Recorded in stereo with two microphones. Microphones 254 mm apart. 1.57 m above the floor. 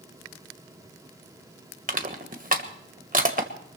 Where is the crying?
No crying in this recording.